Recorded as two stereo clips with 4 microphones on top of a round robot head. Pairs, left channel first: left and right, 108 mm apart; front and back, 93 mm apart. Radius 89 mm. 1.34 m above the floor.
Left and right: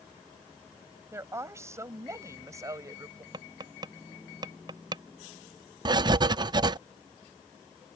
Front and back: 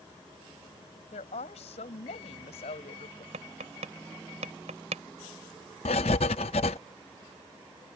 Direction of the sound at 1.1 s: 25° right.